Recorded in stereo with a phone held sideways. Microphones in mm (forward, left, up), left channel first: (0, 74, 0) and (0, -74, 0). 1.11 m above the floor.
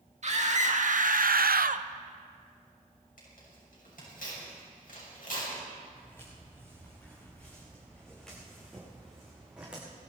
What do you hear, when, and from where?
0.2 s a scream: 50° right (ahead or behind), 1.8 m; by 1.9 s 45° right (ahead or behind), 0.5 m
3.2 s tearing paper: 70° left (ahead or behind), 6.5 m
5.9 s footsteps: 20° left (ahead or behind), 7 m; by 9.8 s 10° right (ahead or behind), 6 m